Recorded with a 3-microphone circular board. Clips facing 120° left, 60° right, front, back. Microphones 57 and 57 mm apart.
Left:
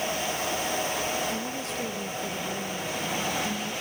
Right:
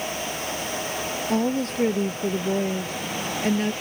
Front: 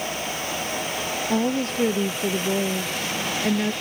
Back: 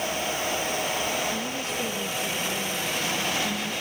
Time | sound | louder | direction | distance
1.3 | a woman speaking | right 8 dB, front 7 dB | 30° right | ?